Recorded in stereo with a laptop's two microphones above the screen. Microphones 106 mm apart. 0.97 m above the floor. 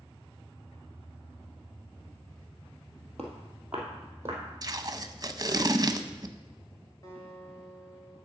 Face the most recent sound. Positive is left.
turn(degrees=35)  # may be behind; listen again after turning